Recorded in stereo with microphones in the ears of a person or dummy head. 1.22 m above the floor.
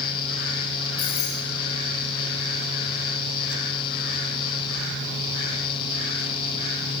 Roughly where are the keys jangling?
Left.